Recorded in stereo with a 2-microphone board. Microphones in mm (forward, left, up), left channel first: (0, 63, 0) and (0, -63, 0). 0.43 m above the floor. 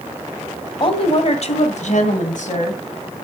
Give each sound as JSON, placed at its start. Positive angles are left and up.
{"t": 0.8, "sound": "a woman speaking", "side_deg": 40, "distance_m": 2.0}